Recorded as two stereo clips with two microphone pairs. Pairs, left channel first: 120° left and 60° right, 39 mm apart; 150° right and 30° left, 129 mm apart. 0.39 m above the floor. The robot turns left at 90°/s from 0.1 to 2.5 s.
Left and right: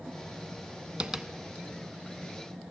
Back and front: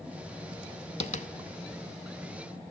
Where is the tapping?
125° right, 0.5 m; by 1.3 s 150° right, 0.5 m.